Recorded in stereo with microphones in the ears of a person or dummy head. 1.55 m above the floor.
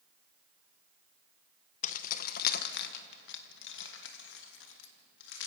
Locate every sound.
1.8 s keys jangling: 45° left (ahead or behind), 0.8 m; by 5.5 s 80° left, 2.5 m